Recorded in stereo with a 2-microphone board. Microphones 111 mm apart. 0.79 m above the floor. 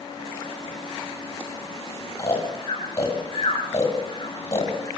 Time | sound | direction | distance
2.2 | snoring | 30° left (ahead or behind) | 9 m